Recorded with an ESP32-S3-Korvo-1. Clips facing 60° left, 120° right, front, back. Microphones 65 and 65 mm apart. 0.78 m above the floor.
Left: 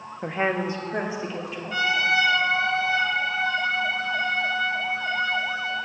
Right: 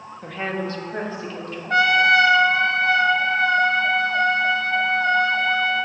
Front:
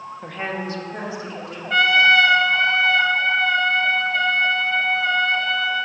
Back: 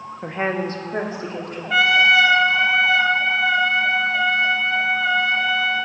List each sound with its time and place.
0.2 s a woman speaking: 115° left, 0.7 m; by 1.6 s 140° left, 1.9 m
1.7 s a trumpet: 95° right, 0.6 m